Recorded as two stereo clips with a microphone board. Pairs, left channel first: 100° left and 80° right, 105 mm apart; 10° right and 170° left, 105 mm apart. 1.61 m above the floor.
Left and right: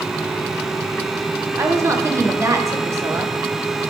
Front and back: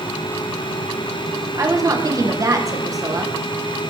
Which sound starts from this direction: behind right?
A woman speaking, at 1.6 s.